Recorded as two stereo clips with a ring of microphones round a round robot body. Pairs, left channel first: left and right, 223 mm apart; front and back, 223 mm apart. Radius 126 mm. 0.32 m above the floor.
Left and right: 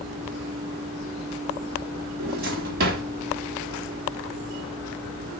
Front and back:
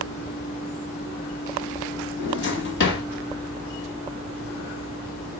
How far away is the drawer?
About 1.0 m.